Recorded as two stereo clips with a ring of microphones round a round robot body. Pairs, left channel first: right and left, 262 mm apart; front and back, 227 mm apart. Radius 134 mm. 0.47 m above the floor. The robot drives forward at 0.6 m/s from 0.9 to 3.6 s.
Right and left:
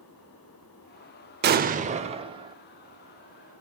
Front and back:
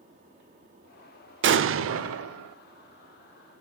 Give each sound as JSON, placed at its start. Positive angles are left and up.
{"t": 1.4, "sound": "an explosion", "azimuth_deg": 140, "distance_m": 0.6}